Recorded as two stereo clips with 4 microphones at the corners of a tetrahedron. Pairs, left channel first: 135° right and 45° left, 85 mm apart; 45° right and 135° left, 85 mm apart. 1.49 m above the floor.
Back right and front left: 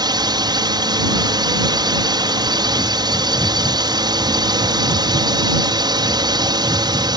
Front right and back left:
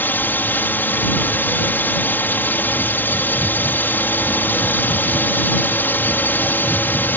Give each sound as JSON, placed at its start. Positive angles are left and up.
{"t": 0.0, "sound": "a drone", "azimuth_deg": 20}